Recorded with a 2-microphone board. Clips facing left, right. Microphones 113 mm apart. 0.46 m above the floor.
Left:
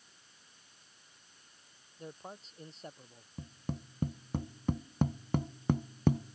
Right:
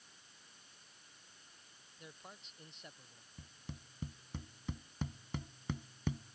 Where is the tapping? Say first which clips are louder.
Left 12 dB; 50° left (ahead or behind).